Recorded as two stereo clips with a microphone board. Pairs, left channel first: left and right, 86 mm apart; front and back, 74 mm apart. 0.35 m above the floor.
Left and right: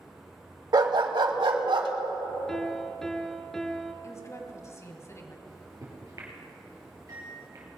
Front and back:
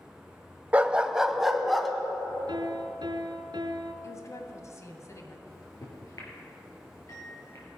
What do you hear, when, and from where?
0.7 s a dog barking: 110° right, 0.7 m; by 1.9 s 90° right, 1.3 m
2.5 s a piano: 175° left, 1.1 m
4.0 s a woman speaking: 40° left, 1.8 m
5.5 s a microwave: 40° right, 4.5 m